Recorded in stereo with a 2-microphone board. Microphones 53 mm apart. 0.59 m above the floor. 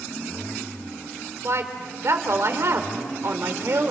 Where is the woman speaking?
60° right (ahead or behind), 2 m.